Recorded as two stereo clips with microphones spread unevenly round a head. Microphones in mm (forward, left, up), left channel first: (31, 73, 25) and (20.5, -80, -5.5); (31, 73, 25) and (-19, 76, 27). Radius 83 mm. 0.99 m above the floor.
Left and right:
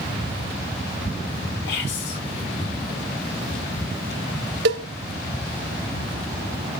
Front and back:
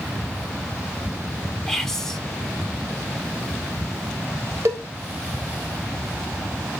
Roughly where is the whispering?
Left.